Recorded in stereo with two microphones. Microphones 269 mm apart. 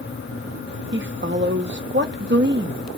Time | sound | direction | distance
0.9 | a woman speaking | 45° right (ahead or behind) | 0.7 m